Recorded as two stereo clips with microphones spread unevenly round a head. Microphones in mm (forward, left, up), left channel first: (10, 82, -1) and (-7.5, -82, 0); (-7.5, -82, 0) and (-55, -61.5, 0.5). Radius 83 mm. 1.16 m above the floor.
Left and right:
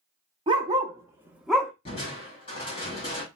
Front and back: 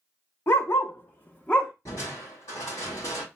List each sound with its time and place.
0.5 s a dog barking: 40° right, 1.1 m; by 1.7 s 25° left, 0.6 m
1.9 s crushing: 25° left, 2.5 m